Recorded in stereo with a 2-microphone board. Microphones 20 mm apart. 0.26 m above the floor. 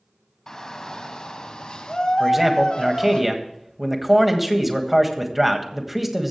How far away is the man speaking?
About 1.6 m.